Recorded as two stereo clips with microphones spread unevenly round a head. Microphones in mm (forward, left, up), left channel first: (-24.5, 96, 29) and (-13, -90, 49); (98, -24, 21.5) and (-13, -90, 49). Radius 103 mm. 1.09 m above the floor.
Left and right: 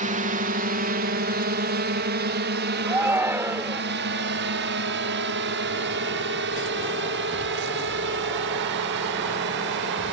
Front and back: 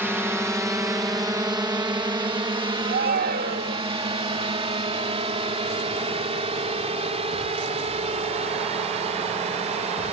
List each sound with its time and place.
0.0 s a drone: 70° right; by 10.1 s 110° right
2.9 s a shout: 165° right